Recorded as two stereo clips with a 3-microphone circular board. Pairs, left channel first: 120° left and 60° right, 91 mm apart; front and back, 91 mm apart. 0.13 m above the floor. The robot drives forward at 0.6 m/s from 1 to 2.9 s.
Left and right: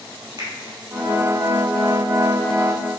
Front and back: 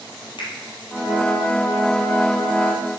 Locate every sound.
0.4 s a finger snap: 15° right, 3 m